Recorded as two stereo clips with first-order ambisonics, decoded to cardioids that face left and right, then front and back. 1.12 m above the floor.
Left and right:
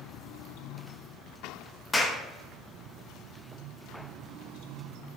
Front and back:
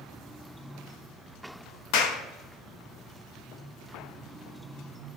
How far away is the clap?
About 0.8 m.